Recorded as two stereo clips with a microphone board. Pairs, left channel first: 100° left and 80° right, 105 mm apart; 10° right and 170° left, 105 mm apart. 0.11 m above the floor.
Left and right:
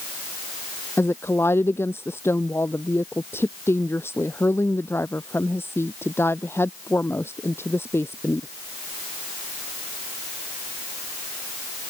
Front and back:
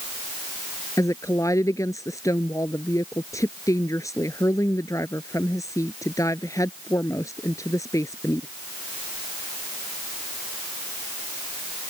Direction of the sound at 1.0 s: 40° left.